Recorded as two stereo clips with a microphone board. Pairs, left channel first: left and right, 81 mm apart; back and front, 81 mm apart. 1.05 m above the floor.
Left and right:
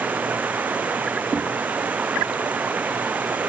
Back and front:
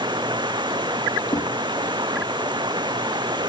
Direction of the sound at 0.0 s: 20° right.